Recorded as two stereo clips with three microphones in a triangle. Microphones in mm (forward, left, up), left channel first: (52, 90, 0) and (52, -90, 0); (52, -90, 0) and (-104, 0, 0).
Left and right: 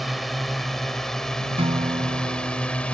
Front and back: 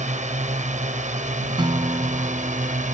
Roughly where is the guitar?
Behind right.